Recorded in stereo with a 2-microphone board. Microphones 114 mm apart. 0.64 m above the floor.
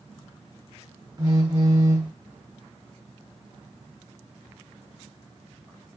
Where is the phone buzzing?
35° right (ahead or behind), 0.8 m.